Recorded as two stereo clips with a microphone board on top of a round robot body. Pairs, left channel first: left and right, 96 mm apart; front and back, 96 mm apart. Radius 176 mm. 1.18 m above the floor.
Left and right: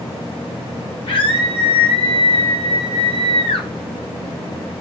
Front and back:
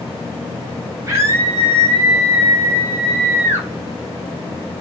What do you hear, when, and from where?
1.1 s a scream: 120° left, 9 m; by 3.7 s 115° left, 6 m